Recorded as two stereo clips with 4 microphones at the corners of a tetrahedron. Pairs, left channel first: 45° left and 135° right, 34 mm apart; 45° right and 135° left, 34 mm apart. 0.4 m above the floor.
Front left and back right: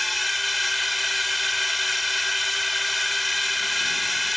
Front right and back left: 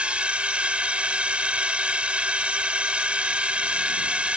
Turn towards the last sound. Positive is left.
turn(degrees=135)